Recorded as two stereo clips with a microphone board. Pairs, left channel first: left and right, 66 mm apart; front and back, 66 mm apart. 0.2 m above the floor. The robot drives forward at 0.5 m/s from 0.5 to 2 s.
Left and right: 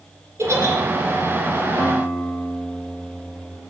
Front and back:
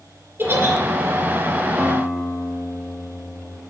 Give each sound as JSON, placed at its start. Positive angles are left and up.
{"t": 0.4, "sound": "a giggle", "azimuth_deg": -130, "distance_m": 2.0}
{"t": 1.8, "sound": "a guitar", "azimuth_deg": 115, "distance_m": 1.4}